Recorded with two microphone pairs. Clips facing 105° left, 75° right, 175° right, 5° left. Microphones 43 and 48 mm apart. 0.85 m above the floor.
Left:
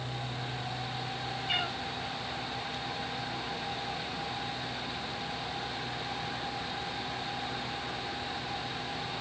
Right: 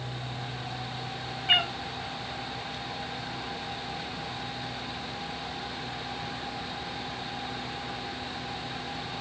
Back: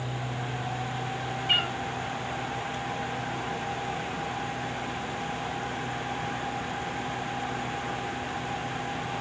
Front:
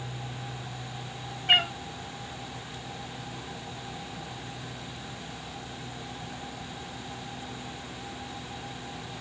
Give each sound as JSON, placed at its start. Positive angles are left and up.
{"t": 1.5, "sound": "a cat meowing", "azimuth_deg": -30, "distance_m": 3.0}